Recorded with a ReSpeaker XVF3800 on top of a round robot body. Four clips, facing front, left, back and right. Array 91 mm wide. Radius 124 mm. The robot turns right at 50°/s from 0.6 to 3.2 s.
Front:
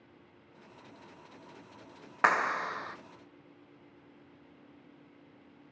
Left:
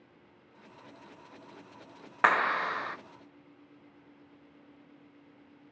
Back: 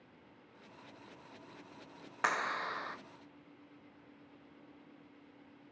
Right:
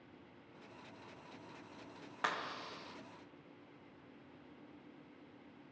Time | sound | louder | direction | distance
2.2 | a clap | left 15 dB, front 7 dB | 55° left | 0.6 m